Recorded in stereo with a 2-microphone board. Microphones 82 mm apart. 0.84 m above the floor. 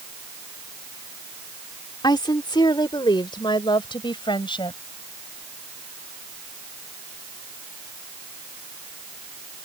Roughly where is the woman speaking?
Left.